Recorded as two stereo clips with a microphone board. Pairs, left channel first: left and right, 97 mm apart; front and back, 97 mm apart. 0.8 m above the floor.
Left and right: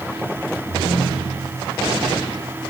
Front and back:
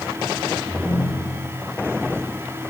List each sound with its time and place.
0.7 s a ringtone: 120° left, 4.5 m